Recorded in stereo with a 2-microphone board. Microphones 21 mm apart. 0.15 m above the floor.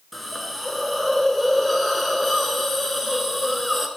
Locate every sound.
0.1 s a hiss: centre (ahead or behind), 1.0 m